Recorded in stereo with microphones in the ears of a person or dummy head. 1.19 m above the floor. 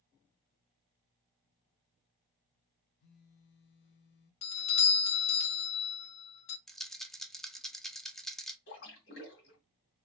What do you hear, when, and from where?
3.0 s a phone buzzing: 55° left (ahead or behind), 0.8 m
4.4 s a doorbell: 35° left (ahead or behind), 0.7 m
6.7 s a rattle: centre (ahead or behind), 0.5 m
8.7 s a splash: 60° left (ahead or behind), 2.0 m